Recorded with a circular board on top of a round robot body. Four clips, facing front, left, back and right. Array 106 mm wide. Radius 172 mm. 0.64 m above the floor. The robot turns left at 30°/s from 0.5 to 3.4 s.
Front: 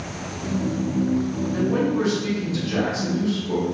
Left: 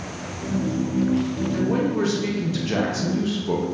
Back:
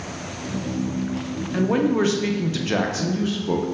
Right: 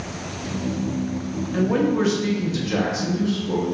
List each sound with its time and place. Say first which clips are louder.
1.5 s a man speaking: right 3 dB, back 3 dB; 155° right, 0.7 m; by 3.6 s 145° left, 0.7 m